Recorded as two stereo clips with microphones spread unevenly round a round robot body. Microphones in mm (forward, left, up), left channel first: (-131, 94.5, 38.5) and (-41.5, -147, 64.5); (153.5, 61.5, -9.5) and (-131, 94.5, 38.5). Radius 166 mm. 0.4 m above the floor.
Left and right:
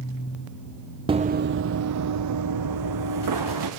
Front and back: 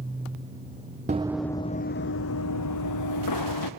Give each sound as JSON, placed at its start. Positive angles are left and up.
{"t": 1.1, "sound": "running footsteps", "azimuth_deg": -130, "distance_m": 0.6}